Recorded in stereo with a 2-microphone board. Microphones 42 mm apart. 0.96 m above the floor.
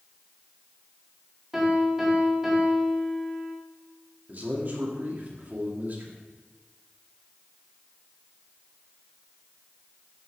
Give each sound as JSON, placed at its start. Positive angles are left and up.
{"t": 1.5, "sound": "a piano", "side_deg": -10, "distance_m": 3.0}
{"t": 4.3, "sound": "a man speaking", "side_deg": -45, "distance_m": 2.5}